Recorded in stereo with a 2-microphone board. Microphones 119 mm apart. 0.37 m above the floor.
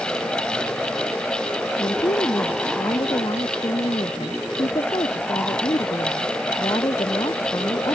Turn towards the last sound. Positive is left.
turn(degrees=45)  # may be behind; listen again after turning